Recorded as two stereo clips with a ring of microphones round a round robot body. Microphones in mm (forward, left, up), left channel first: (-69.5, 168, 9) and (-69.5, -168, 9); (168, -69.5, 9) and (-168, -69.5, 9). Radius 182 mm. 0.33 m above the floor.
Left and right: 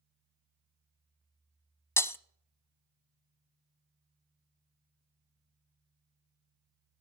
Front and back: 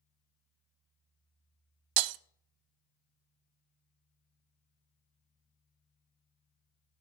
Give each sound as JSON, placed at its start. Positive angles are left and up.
{"t": 2.0, "sound": "breaking glass", "azimuth_deg": 175, "distance_m": 0.6}